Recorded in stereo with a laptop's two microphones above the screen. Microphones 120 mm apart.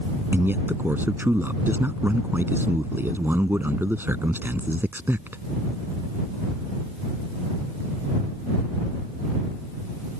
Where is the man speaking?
20° right (ahead or behind).